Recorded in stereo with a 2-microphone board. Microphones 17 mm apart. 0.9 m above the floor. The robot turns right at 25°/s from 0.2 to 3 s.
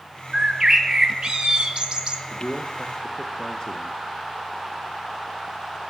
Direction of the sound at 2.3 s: 35° left (ahead or behind).